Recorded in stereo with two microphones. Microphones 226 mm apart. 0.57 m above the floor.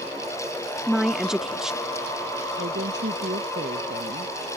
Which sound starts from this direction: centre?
A woman speaking, at 0.9 s.